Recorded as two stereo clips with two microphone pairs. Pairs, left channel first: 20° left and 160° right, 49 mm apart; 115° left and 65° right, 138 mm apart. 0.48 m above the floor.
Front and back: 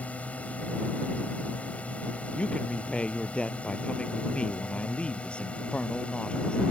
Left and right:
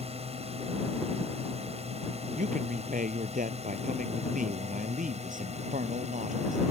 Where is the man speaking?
45° right.